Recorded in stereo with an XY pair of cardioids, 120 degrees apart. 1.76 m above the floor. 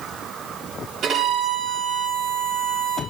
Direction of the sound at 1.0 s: 60° right.